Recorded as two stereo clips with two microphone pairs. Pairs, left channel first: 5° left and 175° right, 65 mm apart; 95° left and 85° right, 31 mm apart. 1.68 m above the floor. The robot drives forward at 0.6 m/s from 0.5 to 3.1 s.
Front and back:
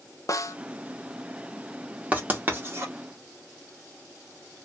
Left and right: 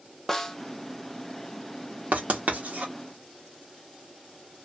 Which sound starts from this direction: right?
Writing, at 2.1 s.